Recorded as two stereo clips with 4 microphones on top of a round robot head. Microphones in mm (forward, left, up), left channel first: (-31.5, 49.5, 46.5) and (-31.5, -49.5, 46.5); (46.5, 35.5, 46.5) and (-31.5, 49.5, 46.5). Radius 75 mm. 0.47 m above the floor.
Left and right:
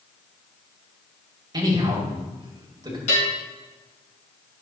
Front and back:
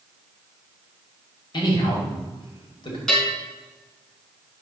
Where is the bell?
70° left, 3.5 m.